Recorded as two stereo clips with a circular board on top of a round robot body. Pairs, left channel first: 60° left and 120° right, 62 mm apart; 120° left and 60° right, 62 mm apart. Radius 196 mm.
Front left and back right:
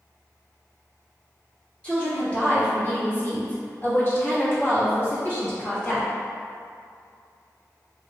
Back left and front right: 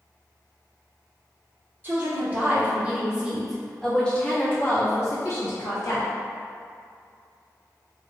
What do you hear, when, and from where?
1.8 s a woman speaking: 10° right, 1.8 m; by 6.1 s 120° left, 1.6 m